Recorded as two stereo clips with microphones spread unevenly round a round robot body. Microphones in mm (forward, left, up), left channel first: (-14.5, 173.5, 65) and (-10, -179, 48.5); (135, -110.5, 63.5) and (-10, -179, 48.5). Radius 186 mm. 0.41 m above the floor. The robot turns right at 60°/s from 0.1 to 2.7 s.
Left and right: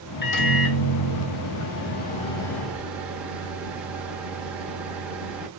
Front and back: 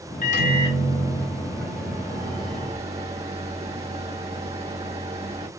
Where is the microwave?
40° left, 0.9 m; by 5.5 s 175° right, 0.9 m.